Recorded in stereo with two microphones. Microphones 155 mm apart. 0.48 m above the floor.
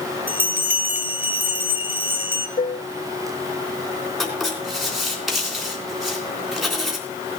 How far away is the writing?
About 3.5 m.